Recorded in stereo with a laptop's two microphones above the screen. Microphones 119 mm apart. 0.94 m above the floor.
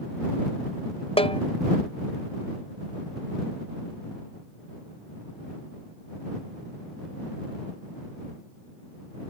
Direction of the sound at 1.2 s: 50° left (ahead or behind).